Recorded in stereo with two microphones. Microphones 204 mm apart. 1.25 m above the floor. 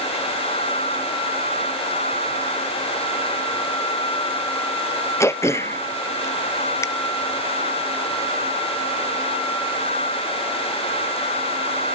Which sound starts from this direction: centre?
Throat clearing, at 5.2 s.